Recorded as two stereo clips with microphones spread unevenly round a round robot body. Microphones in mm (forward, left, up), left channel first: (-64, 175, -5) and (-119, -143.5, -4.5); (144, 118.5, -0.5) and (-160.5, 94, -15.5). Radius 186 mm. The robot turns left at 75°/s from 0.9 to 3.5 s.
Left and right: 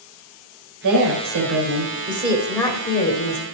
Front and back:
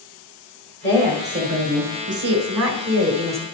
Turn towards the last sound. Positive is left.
turn(degrees=95)